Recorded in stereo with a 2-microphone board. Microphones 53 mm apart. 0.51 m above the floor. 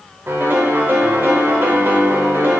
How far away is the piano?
About 0.8 m.